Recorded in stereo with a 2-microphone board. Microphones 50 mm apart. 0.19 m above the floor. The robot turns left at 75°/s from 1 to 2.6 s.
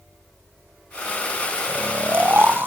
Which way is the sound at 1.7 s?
30° right.